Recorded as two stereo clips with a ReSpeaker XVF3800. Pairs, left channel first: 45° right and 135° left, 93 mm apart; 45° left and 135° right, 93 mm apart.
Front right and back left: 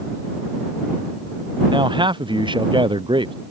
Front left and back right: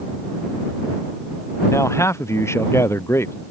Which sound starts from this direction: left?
A man speaking, at 1.7 s.